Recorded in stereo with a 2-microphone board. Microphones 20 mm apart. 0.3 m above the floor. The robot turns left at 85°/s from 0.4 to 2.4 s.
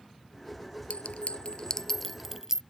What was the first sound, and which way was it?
A clink, 70° left (ahead or behind).